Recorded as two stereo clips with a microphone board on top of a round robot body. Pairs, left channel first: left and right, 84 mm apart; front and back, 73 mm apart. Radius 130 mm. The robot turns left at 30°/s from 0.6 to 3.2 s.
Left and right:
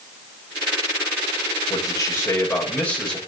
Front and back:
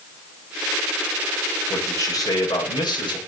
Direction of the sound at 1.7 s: 55° left.